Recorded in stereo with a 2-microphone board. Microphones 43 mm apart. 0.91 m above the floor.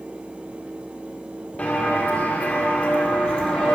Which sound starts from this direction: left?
Footsteps, at 1.6 s.